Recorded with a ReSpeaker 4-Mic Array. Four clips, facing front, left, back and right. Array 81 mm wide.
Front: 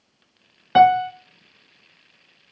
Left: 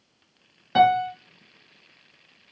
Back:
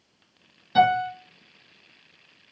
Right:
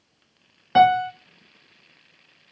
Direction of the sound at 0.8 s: 15° right.